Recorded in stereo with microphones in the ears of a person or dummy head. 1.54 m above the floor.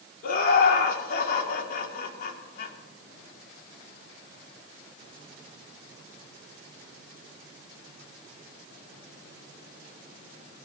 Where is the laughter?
60° left (ahead or behind), 3 m.